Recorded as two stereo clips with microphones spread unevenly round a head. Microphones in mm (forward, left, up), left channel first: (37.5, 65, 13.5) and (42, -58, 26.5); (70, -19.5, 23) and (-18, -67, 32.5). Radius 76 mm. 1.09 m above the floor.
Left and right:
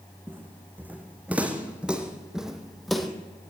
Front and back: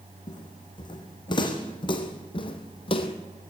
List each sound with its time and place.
0.3 s footsteps: 15° right, 3.5 m; by 3.1 s straight ahead, 2.5 m